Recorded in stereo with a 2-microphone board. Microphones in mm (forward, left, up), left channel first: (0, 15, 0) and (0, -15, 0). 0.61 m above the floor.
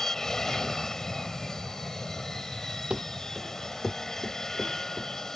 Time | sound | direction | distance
0.0 | an aircraft | 15° left (ahead or behind) | ?
2.9 | running footsteps | 40° right (ahead or behind) | ?